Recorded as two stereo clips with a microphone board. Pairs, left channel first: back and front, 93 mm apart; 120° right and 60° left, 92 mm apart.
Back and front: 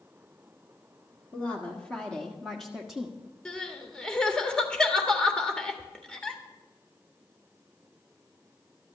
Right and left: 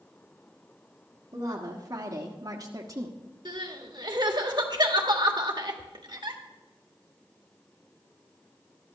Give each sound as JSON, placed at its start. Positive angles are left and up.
{"t": 1.3, "sound": "a woman speaking", "azimuth_deg": 105, "distance_m": 1.8}
{"t": 3.5, "sound": "crying", "azimuth_deg": 100, "distance_m": 1.5}